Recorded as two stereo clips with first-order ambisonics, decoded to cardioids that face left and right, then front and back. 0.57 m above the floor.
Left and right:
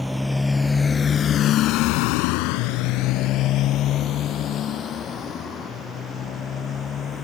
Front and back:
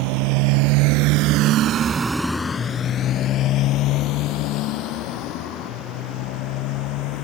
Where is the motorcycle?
175° left; by 7.2 s 25° left.